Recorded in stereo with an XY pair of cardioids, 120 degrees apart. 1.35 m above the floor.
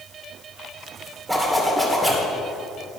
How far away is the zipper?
About 2.5 m.